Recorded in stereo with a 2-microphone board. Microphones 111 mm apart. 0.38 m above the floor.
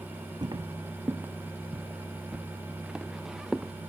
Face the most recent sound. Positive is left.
turn(degrees=-5)  # may be behind; listen again after turning